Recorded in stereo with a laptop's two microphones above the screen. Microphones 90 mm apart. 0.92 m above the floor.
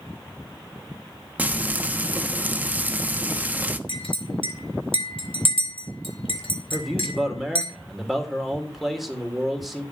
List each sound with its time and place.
1.4 s frying: 20° right (ahead or behind), 1.1 m
3.9 s a clink: 75° left (ahead or behind), 3.5 m
6.7 s a man speaking: 5° right (ahead or behind), 3.5 m